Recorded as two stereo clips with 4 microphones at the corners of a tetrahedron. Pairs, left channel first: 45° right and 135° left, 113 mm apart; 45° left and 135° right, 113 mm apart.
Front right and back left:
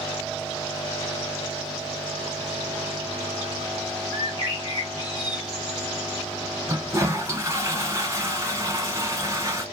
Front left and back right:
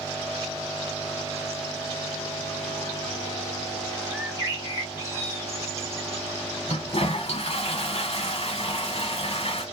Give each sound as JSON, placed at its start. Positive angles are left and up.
{"t": 4.1, "sound": "a bird", "azimuth_deg": -80, "distance_m": 1.8}
{"t": 6.7, "sound": "a toilet flushing", "azimuth_deg": 75, "distance_m": 0.9}